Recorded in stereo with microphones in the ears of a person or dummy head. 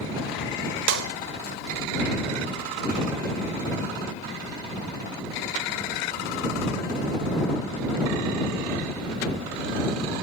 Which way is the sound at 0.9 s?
75° right (ahead or behind).